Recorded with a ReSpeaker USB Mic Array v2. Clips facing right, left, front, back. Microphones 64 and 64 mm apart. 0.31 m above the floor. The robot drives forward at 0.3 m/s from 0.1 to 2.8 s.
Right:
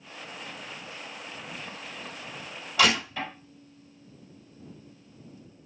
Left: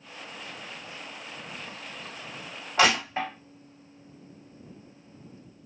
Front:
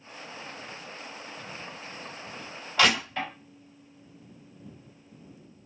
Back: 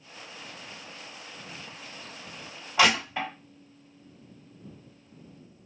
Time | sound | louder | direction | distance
2.8 | crushing | left 1 dB, back 1 dB | 115° left | 2 m